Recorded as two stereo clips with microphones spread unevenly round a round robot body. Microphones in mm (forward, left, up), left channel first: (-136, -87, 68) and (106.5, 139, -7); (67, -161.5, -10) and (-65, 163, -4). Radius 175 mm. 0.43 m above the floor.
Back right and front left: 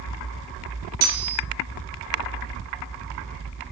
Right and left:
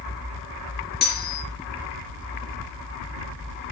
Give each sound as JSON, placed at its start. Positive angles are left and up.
{"t": 1.0, "sound": "cutlery clinking", "azimuth_deg": -5, "distance_m": 5.0}